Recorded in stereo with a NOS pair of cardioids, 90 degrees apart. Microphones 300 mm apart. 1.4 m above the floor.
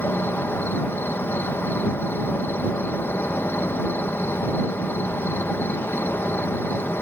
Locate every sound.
0.0 s an insect: 5° left